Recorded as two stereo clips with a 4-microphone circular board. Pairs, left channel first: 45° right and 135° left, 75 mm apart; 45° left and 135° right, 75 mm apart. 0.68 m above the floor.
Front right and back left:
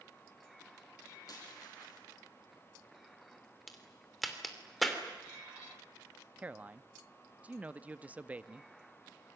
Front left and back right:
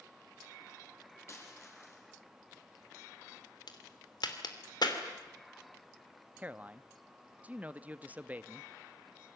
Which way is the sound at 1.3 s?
10° right.